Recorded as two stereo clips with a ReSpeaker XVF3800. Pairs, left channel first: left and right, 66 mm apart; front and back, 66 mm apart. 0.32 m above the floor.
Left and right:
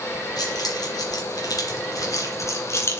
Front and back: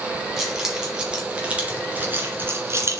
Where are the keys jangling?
95° left, 3.5 m; by 3.0 s 140° left, 2.5 m.